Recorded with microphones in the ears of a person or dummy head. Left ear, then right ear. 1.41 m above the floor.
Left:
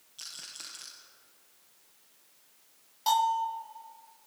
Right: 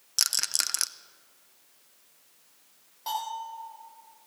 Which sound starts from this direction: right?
A rattle, at 0.2 s.